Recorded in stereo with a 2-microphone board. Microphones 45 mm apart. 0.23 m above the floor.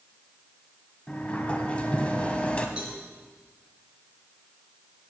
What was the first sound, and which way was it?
A sliding door, 25° left (ahead or behind).